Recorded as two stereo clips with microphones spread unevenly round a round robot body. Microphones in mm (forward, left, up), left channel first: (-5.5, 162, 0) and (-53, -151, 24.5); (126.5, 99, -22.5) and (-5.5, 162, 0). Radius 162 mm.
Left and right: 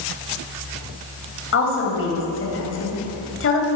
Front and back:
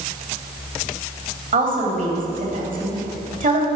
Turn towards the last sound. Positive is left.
turn(degrees=130)